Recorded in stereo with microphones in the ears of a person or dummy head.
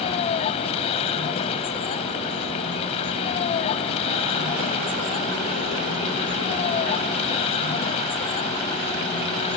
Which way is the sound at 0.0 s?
35° left (ahead or behind).